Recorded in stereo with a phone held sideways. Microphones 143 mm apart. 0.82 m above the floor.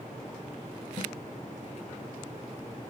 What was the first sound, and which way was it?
A snare drum, 40° left (ahead or behind).